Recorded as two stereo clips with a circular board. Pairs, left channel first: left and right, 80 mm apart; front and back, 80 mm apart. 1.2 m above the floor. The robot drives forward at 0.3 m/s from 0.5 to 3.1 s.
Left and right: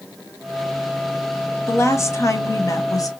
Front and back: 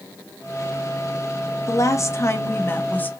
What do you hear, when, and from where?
1.7 s a woman speaking: 40° left, 1.1 m; by 3.1 s 65° left, 0.8 m